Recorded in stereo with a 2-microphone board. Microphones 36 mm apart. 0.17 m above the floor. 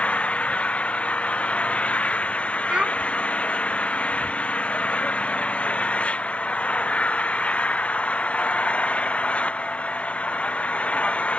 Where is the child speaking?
30° right (ahead or behind).